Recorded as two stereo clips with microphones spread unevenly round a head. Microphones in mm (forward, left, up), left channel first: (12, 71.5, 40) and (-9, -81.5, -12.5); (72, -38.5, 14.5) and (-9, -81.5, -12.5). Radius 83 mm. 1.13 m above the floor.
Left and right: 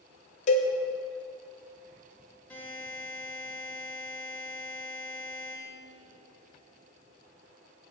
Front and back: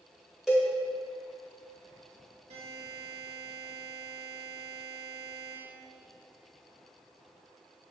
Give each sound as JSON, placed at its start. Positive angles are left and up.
{"t": 0.5, "sound": "a cowbell", "azimuth_deg": 110, "distance_m": 1.1}
{"t": 2.5, "sound": "a buzzer", "azimuth_deg": 160, "distance_m": 2.5}